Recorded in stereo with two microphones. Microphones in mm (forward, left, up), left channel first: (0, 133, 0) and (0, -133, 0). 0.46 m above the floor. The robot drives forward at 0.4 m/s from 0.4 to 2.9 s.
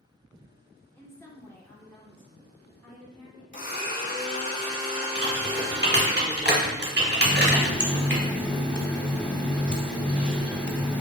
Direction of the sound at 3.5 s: 45° left (ahead or behind).